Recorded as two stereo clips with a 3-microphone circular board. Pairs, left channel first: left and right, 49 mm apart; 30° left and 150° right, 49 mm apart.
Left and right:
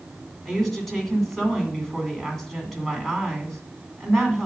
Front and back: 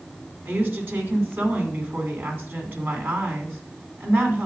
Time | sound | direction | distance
0.5 | a woman speaking | 175° left | 2.0 m